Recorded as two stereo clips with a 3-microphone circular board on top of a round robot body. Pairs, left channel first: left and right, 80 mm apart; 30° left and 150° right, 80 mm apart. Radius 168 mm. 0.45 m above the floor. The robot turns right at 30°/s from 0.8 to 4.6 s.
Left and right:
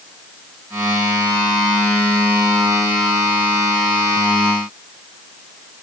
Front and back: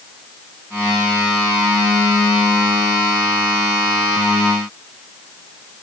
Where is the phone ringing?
No phone ringing in this recording.